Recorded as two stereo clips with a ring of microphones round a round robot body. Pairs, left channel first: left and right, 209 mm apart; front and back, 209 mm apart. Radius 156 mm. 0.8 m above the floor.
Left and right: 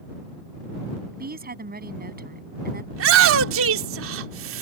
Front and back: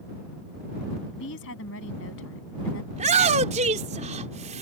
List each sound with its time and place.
1.1 s a woman speaking: 45° right
2.9 s a shout: 115° right